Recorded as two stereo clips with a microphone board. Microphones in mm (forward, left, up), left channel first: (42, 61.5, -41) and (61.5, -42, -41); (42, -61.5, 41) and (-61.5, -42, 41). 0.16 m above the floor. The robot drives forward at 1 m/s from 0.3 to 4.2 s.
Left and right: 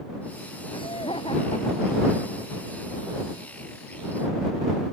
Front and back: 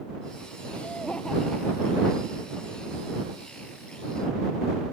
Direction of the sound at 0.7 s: 65° left.